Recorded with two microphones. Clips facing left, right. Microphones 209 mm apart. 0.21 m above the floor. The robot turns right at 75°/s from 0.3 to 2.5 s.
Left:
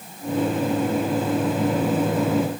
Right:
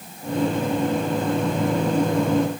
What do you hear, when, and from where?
Only background noise.